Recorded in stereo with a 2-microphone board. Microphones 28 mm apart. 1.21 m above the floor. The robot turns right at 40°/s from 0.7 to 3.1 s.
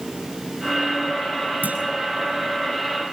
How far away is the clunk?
About 5.5 m.